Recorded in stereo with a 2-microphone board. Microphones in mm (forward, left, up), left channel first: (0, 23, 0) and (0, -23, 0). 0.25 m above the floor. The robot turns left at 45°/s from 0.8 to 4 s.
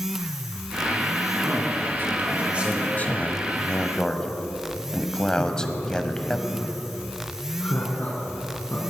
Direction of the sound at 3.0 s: 35° left (ahead or behind).